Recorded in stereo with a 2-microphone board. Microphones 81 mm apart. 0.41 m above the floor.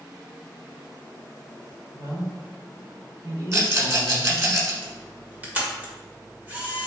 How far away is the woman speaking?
About 1.0 m.